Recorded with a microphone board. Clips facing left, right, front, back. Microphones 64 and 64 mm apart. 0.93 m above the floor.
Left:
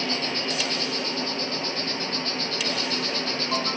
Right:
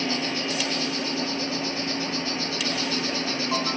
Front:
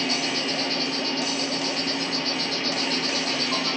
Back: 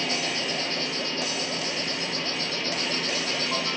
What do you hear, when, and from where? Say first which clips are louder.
0.0 s an insect: right 1 dB, front 2 dB; 10° right, 3 m